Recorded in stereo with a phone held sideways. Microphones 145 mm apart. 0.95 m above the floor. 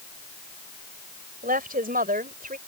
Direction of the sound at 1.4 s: 85° right.